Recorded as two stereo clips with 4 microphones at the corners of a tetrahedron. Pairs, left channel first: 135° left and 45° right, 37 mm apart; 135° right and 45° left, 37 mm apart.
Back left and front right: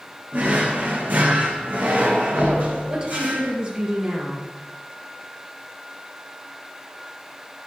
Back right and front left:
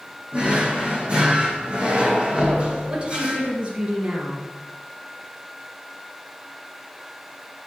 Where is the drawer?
10° right, 2.5 m.